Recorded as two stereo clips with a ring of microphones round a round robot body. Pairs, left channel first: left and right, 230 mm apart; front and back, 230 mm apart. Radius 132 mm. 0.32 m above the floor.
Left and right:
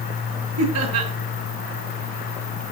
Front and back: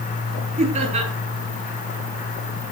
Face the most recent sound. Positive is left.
turn(degrees=-115)